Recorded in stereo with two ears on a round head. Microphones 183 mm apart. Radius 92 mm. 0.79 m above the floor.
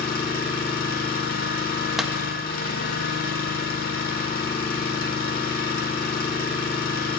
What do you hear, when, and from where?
0.0 s an engine running: 50° left (ahead or behind), 1.2 m
2.0 s a clap: centre (ahead or behind), 0.5 m